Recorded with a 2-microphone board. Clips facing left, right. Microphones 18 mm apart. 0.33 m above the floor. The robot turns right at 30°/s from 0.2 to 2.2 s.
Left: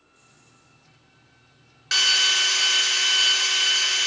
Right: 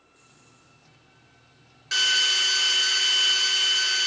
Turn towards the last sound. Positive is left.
turn(degrees=30)  # may be behind; listen again after turning